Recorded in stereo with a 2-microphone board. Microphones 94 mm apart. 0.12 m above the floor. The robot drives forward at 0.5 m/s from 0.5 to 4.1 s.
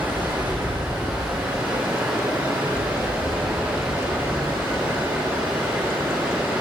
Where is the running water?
20° right (ahead or behind), 3.5 m; by 6.6 s 10° right (ahead or behind), 5.5 m.